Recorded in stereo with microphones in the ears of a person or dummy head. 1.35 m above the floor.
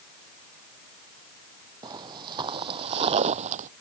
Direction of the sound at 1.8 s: 25° right (ahead or behind).